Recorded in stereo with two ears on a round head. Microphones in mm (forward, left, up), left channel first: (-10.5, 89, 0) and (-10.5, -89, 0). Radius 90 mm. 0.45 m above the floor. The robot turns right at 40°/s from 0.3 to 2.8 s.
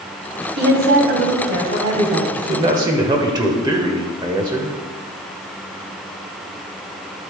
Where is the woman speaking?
100° right, 2.5 m; by 2.3 s 35° right, 2.5 m.